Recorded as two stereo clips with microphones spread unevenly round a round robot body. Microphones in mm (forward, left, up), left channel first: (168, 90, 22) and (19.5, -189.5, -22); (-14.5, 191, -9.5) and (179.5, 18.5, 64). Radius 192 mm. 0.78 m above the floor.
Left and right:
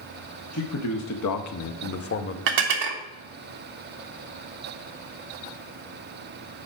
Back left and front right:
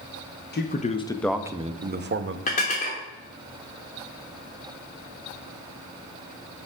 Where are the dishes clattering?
155° right, 1.1 m.